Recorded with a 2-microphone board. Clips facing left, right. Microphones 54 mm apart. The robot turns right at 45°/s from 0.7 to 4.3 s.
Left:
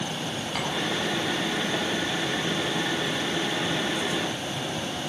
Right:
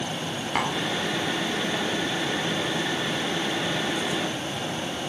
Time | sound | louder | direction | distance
0.6 | tapping | right 5 dB | 40° right (ahead or behind) | 1.7 m